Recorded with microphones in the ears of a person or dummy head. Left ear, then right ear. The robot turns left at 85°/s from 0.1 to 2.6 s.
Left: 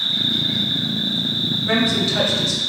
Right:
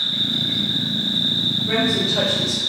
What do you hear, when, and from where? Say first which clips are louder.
0.0 s an insect: left 1 dB; 20° left, 1.7 m; by 2.7 s 170° left, 1.7 m
1.7 s a woman speaking: left 1 dB; 80° left, 0.8 m; by 2.6 s straight ahead, 0.8 m